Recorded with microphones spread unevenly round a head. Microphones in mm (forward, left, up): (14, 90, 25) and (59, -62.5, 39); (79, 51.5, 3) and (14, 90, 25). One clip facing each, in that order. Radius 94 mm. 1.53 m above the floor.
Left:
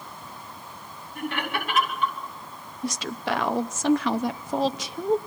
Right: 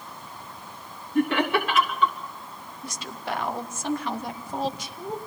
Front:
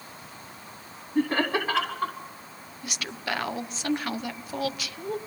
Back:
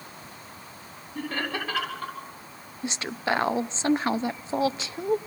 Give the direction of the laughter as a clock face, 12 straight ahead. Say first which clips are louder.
Right 8 dB, front 6 dB; 4 o'clock.